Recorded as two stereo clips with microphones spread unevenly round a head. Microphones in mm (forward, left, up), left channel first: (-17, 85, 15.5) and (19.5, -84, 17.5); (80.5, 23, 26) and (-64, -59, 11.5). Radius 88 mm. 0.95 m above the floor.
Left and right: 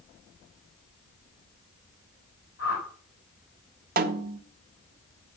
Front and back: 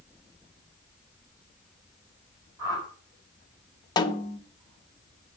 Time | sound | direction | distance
2.6 | a whoosh | 135° left | 6 m
4.0 | a snare drum | 40° right | 1.0 m